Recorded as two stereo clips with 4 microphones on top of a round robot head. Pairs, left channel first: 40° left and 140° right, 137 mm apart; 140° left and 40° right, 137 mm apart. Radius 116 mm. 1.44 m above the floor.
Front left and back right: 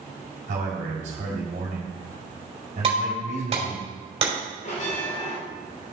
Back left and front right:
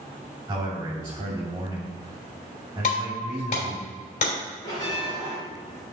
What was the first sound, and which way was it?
A man speaking, 110° right.